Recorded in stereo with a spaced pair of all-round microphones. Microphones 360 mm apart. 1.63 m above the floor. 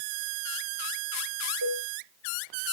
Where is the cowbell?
75° right (ahead or behind), 2.5 m.